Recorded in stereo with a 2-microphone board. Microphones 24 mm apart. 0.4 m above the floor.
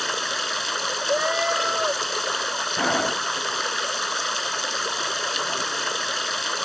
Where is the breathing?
25° left (ahead or behind).